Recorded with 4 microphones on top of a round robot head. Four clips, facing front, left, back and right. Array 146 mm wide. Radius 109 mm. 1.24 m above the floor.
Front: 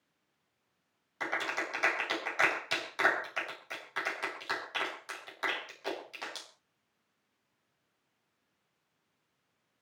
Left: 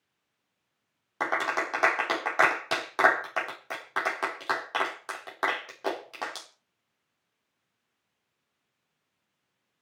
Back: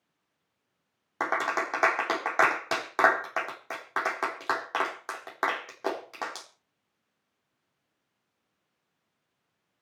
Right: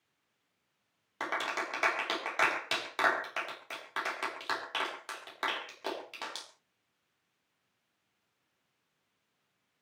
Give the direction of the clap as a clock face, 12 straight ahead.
7 o'clock.